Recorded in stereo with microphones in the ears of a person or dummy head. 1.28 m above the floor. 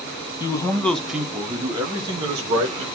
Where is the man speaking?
25° left (ahead or behind), 0.8 m; by 2.9 s 30° right (ahead or behind), 1.7 m.